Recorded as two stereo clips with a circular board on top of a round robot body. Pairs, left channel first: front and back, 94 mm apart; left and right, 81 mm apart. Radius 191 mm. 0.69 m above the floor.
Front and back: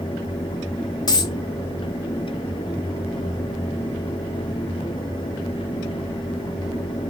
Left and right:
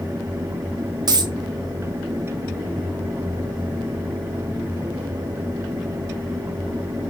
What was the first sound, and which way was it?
A dropped coin, 50° right.